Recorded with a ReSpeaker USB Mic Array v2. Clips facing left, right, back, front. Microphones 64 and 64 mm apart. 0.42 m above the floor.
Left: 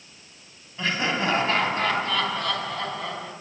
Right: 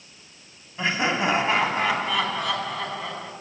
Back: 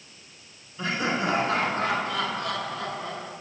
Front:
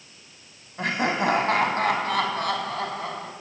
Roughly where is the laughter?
Ahead.